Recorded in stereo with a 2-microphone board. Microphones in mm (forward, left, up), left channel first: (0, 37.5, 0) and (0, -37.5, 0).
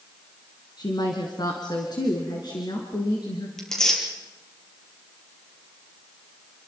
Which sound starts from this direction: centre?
Tearing paper, at 3.6 s.